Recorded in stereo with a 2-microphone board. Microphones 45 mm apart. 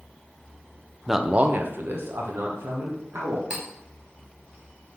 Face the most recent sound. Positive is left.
turn(degrees=-25)  # may be behind; listen again after turning